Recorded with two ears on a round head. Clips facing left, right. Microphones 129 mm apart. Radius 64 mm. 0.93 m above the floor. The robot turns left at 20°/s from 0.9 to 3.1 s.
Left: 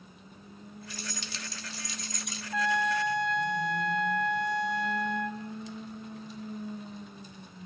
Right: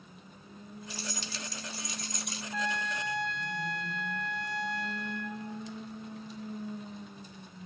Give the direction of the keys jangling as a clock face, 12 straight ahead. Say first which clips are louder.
Right 1 dB; 7 o'clock.